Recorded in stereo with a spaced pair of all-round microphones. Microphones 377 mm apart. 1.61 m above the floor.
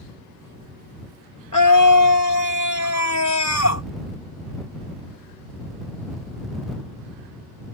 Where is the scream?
55° left (ahead or behind); by 3.9 s 40° left (ahead or behind).